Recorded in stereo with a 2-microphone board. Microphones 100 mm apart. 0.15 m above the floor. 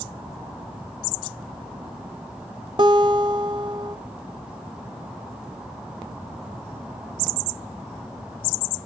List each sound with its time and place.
2.8 s a guitar: 55° right (ahead or behind), 1.3 m